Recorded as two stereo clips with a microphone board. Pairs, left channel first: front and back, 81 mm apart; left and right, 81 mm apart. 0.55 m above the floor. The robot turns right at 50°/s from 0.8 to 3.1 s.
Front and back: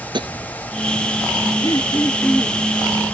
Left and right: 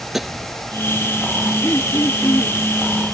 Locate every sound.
0.1 s tapping: 175° right
1.6 s throat clearing: 35° left; by 2.6 s 85° left